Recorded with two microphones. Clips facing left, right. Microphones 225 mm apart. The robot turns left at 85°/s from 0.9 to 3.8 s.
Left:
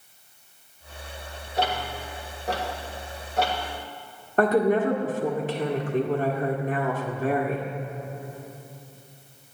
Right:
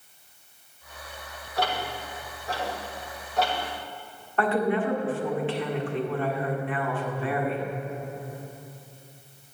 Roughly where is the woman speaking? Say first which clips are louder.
Left 4 dB; left.